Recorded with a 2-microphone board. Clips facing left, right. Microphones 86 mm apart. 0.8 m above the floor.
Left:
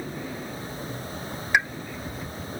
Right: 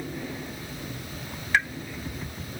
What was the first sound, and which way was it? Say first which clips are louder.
A pop: left 1 dB; 15° left (ahead or behind).